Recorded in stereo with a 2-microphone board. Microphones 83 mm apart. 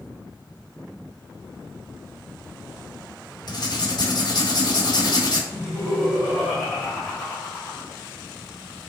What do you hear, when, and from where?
3.5 s writing: 50° left (ahead or behind), 1.0 m
5.5 s laughter: 5° right (ahead or behind), 1.6 m